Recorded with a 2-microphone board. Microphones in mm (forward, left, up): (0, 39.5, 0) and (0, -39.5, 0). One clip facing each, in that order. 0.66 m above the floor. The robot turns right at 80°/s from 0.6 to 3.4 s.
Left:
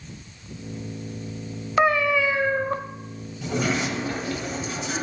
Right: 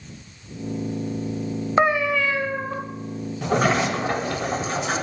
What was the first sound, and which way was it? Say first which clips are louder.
A cat meowing: even; 30° right.